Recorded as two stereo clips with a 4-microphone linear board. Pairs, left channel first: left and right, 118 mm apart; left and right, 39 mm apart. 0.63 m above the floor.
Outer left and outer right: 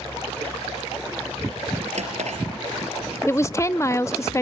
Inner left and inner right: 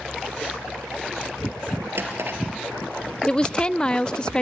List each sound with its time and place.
1.9 s a drawer: 75° right (ahead or behind), 4 m
3.3 s a woman speaking: 25° left (ahead or behind), 0.5 m